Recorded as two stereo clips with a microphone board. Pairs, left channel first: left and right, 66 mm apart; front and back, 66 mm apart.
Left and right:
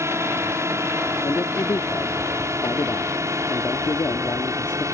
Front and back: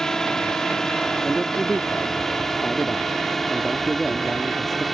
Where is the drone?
80° right; by 5.0 s 90° right.